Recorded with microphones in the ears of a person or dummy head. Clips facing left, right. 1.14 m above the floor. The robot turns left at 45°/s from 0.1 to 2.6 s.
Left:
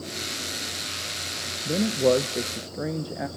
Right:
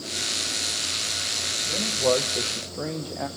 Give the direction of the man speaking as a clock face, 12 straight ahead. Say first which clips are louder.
Left 3 dB; 10 o'clock.